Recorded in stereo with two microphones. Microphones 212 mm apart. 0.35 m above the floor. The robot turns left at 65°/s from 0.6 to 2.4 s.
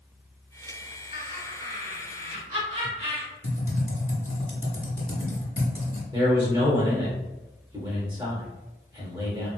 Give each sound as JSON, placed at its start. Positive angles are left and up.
{"t": 1.1, "sound": "laughter", "azimuth_deg": -50, "distance_m": 2.0}
{"t": 3.4, "sound": "typing on a keyboard", "side_deg": 80, "distance_m": 1.0}
{"t": 6.1, "sound": "a man speaking", "side_deg": -20, "distance_m": 0.9}